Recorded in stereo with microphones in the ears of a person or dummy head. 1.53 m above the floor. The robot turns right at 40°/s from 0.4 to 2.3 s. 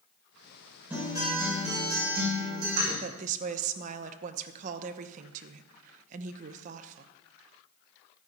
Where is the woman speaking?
45° right (ahead or behind), 0.8 m.